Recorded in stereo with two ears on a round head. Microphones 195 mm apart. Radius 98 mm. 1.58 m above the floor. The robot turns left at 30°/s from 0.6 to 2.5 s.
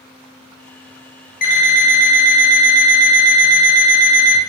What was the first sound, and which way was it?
An alarm clock, 95° left.